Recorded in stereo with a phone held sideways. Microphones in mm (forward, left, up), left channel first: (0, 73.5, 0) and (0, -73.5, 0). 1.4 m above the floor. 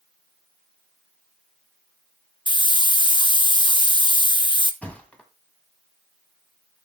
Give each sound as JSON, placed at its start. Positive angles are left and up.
{"t": 2.5, "sound": "a hiss", "side_deg": 35, "distance_m": 0.7}
{"t": 4.8, "sound": "a thud", "side_deg": 10, "distance_m": 1.5}